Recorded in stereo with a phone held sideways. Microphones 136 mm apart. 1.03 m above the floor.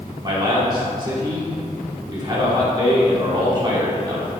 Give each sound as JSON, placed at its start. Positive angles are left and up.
{"t": 0.2, "sound": "a man speaking", "side_deg": -35, "distance_m": 2.5}